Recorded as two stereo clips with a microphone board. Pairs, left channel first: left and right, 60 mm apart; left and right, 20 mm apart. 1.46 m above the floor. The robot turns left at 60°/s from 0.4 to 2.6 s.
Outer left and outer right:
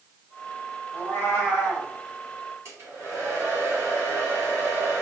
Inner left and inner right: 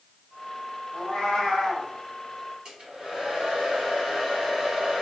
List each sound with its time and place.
0.9 s a cat meowing: 110° left, 0.9 m; by 1.9 s 55° left, 0.9 m
2.6 s a hair dryer: 45° right (ahead or behind), 1.8 m